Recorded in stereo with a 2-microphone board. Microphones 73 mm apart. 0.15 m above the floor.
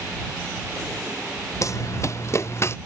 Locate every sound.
1.6 s running footsteps: 50° left (ahead or behind); by 2.8 s 40° left (ahead or behind)